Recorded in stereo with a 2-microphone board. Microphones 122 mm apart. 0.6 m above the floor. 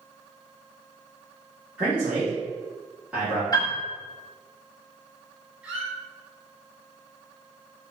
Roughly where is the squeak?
Centre.